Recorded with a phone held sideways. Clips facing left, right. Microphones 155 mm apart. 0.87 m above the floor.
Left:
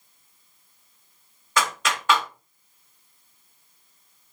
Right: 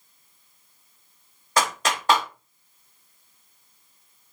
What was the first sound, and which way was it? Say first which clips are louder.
A clap: right 2 dB; 35° right (ahead or behind).